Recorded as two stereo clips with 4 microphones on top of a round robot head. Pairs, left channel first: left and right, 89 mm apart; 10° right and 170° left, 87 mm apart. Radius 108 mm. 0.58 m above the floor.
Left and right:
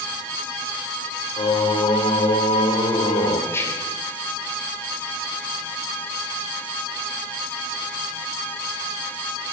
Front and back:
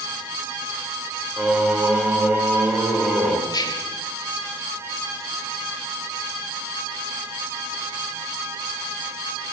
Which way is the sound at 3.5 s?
30° left.